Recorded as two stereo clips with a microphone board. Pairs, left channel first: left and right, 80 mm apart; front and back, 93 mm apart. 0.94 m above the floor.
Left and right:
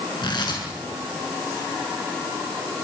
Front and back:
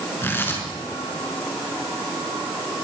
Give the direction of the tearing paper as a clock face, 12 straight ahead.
10 o'clock.